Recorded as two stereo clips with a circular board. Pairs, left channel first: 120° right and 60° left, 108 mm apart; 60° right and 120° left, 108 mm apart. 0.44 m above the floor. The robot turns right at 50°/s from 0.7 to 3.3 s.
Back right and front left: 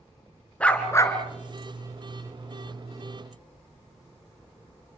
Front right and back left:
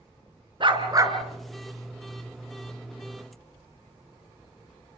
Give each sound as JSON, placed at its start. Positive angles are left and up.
{"t": 0.6, "sound": "a dog barking", "azimuth_deg": 160, "distance_m": 2.5}